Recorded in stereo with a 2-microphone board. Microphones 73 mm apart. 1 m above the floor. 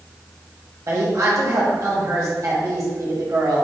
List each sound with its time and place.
0.9 s a woman speaking: 50° right (ahead or behind), 1.7 m